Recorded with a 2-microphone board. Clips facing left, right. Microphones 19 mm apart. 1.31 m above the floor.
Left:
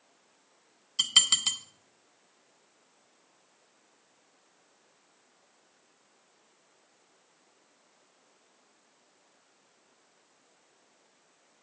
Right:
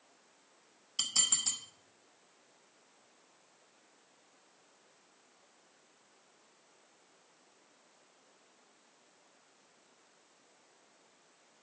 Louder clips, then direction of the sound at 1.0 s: Left 10 dB; 65° left (ahead or behind).